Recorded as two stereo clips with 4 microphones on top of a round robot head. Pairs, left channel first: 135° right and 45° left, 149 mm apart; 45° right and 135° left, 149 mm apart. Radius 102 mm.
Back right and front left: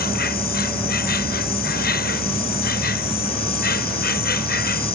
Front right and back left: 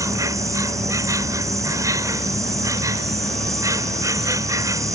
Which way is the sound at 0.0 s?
155° right.